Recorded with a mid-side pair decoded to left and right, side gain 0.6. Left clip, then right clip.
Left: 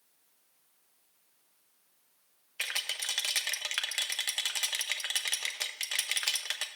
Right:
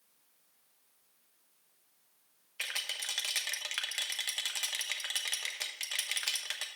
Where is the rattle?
20° left, 1.0 m.